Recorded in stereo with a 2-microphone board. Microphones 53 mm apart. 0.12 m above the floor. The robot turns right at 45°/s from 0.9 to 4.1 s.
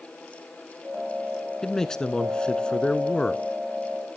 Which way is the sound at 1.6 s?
10° left (ahead or behind).